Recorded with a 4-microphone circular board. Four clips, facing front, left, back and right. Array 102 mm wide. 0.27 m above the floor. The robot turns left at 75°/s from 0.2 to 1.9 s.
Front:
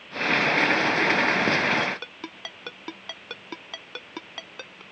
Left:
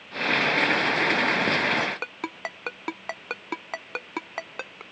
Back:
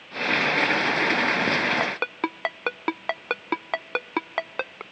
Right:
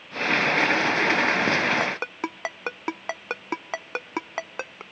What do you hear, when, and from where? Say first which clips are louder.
1.8 s a ringtone: right 2 dB, back 4 dB; 150° right; by 4.8 s 160° right